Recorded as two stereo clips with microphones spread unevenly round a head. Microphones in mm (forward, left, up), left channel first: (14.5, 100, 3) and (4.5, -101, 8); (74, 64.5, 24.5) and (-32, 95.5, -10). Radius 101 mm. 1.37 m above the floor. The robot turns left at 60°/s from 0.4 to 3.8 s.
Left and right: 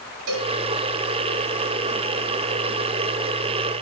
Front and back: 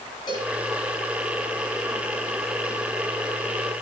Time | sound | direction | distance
0.3 | a cowbell | 85° right | 4 m